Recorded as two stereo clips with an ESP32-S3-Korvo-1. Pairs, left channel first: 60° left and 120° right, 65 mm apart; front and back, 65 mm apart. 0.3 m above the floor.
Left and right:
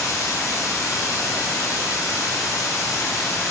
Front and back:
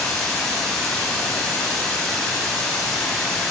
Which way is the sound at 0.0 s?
80° left.